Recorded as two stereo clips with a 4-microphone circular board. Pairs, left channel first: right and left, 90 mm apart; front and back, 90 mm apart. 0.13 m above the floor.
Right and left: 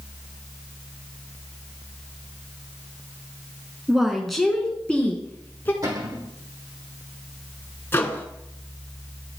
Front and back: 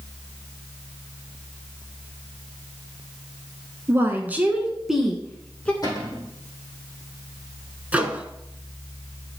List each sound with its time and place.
3.9 s a woman speaking: 170° left, 1.5 m; by 5.7 s 55° right, 1.5 m
5.8 s a cupboard door: 45° left, 4 m
7.9 s a microwave: 120° right, 1.0 m